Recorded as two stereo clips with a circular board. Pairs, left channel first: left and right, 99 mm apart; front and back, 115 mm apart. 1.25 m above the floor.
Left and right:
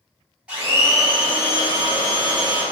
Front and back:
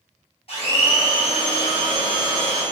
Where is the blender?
15° right, 1.1 m.